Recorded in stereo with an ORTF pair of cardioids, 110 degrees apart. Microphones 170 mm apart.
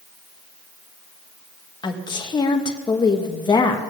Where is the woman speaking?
25° left, 1.9 m.